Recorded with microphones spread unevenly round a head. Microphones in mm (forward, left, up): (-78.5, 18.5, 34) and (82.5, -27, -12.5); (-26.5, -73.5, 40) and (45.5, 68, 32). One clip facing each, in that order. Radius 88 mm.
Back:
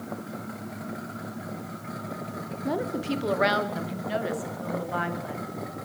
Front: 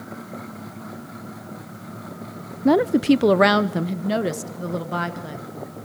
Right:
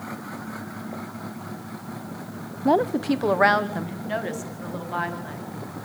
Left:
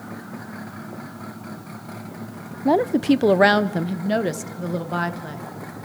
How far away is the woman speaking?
About 0.5 m.